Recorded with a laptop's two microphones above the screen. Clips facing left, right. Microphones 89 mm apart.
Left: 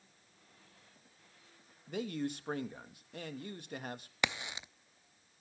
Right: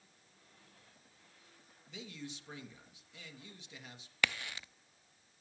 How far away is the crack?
About 0.7 m.